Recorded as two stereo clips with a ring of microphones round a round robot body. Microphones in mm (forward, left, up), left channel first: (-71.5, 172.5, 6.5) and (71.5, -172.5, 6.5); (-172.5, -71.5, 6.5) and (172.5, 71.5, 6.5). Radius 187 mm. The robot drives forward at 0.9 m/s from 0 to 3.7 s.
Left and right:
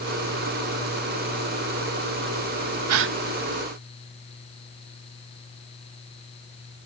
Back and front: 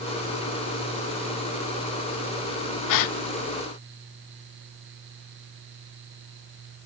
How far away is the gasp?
About 0.6 m.